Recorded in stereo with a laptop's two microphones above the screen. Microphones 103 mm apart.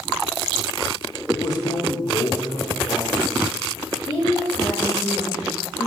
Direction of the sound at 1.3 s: 35° left (ahead or behind).